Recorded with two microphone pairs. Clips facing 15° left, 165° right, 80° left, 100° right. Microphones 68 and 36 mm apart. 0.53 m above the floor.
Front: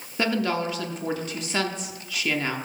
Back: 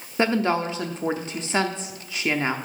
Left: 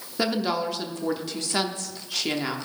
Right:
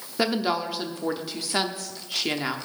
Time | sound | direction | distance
0.2 | a woman speaking | 170° right | 0.7 m